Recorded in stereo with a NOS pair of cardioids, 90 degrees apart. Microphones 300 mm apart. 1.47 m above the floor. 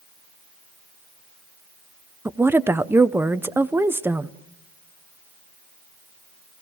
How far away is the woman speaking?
About 0.7 m.